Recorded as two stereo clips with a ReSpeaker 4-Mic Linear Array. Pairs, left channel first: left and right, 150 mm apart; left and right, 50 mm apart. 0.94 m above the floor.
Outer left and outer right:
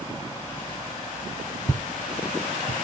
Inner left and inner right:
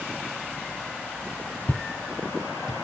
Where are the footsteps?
25° left (ahead or behind), 1.2 m; by 2.7 s 20° right (ahead or behind), 1.0 m.